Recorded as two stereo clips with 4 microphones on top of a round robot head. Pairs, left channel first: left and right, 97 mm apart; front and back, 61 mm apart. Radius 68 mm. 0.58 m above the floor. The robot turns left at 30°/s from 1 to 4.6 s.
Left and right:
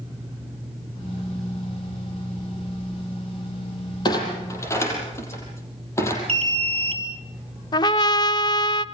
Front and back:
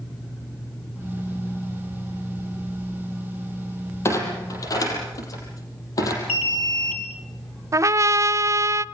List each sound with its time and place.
4.0 s a clunk: 45° left, 6 m; by 6.2 s 30° left, 6 m
6.3 s an alarm: 70° right, 3 m
7.7 s a trumpet: 140° left, 0.5 m